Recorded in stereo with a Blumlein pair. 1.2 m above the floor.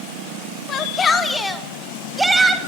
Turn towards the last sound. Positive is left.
turn(degrees=-15)